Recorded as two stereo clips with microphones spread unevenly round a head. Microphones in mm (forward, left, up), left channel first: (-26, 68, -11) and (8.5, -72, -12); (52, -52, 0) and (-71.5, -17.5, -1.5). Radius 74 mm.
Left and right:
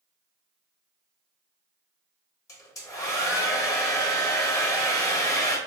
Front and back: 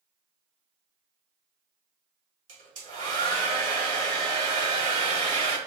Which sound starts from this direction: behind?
A hair dryer, at 2.5 s.